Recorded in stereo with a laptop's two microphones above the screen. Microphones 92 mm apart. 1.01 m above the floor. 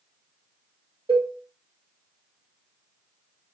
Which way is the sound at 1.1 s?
65° right (ahead or behind).